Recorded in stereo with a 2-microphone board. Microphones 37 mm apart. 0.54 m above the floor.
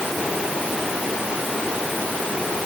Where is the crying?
I don't hear crying.